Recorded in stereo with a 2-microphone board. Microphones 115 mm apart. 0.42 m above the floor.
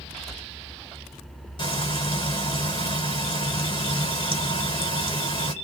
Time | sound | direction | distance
1.6 | frying | 45° left (ahead or behind) | 1.8 m